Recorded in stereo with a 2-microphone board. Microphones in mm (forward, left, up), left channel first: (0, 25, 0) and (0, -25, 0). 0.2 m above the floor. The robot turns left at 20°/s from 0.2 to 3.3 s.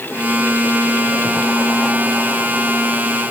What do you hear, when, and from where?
Only background noise.